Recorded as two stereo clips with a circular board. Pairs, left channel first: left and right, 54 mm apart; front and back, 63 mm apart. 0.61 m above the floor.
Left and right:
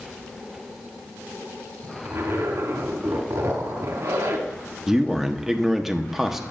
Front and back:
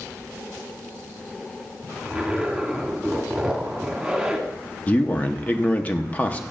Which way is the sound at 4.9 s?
15° right.